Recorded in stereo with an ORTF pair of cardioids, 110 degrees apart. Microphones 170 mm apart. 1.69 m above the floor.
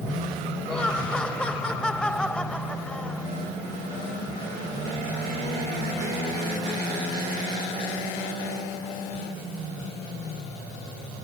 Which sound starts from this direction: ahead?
Laughter, at 0.7 s.